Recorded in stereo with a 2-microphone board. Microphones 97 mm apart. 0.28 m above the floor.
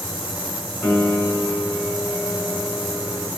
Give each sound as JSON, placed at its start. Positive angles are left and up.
{"t": 0.8, "sound": "a piano", "side_deg": 10, "distance_m": 1.2}